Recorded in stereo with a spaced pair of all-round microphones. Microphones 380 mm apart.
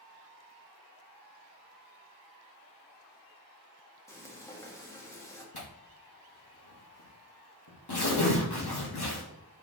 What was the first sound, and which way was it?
Frying, 5° left (ahead or behind).